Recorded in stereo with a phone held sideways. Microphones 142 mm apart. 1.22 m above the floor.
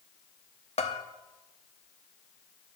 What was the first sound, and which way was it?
A bell, 50° left (ahead or behind).